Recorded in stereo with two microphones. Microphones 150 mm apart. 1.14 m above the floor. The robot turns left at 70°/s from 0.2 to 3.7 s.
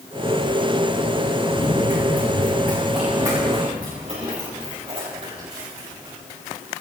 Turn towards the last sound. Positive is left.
turn(degrees=-35)  # may be behind; listen again after turning